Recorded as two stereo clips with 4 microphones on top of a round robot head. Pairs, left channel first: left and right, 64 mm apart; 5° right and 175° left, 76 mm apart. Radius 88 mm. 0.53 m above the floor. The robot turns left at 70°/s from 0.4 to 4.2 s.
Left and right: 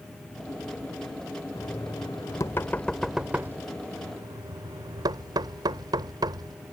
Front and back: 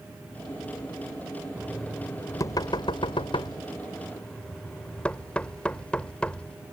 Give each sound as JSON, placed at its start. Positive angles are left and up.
{"t": 1.6, "sound": "knocking", "azimuth_deg": 105}